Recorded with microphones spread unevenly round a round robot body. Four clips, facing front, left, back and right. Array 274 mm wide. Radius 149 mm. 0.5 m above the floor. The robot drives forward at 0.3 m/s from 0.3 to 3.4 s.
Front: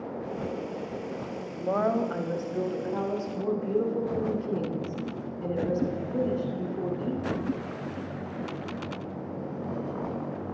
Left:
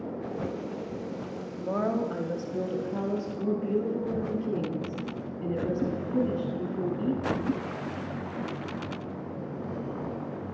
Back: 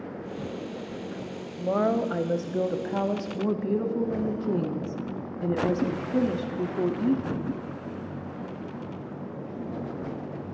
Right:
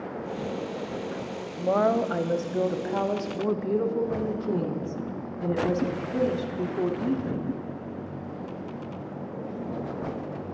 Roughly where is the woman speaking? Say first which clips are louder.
Right 6 dB, back 2 dB; right.